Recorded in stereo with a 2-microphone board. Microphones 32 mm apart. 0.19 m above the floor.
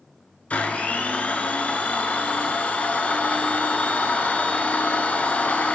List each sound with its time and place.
0.5 s a blender: 45° left (ahead or behind), 0.9 m